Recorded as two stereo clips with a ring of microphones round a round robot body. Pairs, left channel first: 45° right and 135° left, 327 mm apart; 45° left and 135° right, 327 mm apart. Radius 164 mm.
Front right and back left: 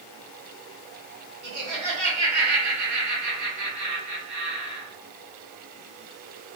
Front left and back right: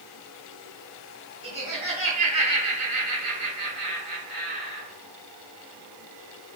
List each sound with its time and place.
1.4 s laughter: 160° left, 2.0 m